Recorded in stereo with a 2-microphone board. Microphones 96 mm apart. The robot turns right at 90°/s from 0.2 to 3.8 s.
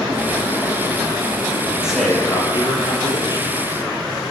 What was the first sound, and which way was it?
A man speaking, 15° right.